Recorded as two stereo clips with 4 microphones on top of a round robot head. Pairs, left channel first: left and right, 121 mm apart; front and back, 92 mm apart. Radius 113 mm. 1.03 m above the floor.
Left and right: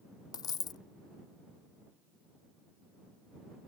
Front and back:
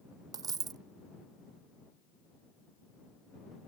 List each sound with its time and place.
0.3 s a dropped coin: 140° left